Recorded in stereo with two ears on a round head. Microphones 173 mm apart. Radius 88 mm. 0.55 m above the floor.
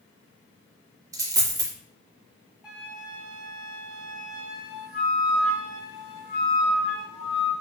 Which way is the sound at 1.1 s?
15° right (ahead or behind).